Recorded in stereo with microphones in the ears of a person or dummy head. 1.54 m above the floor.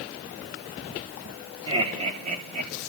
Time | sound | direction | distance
1.7 | laughter | 30° right (ahead or behind) | 4 m